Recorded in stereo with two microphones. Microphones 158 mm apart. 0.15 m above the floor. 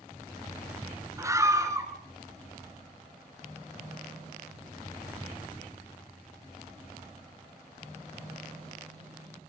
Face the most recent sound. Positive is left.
turn(degrees=-20)  # may be behind; listen again after turning